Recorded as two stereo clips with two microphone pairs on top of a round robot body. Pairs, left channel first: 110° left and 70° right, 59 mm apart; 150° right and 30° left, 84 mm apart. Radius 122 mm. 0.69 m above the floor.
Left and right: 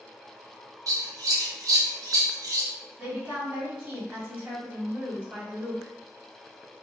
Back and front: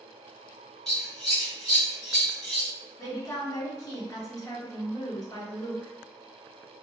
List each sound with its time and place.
0.9 s scissors: 60° right, 1.3 m
3.0 s a woman speaking: 115° right, 1.4 m